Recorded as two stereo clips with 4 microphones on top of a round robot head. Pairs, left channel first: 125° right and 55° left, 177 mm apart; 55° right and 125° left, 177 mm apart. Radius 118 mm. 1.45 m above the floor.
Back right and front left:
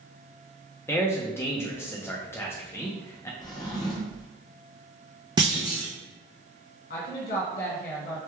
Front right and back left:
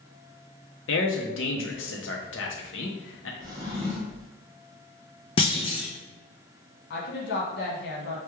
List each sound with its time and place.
0.9 s a man speaking: 50° right, 0.5 m
3.4 s a drawer: 175° right, 0.5 m
5.4 s a clunk: 5° right, 0.5 m
6.9 s a woman speaking: 85° right, 1.2 m